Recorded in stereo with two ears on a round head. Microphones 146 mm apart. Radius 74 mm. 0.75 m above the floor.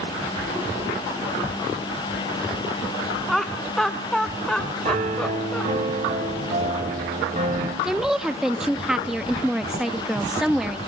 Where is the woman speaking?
5° right (ahead or behind), 0.7 m.